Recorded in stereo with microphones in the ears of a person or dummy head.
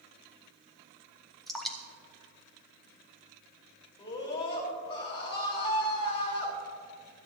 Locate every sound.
1.5 s dripping: centre (ahead or behind), 1.1 m
4.0 s a scream: 25° left (ahead or behind), 3.5 m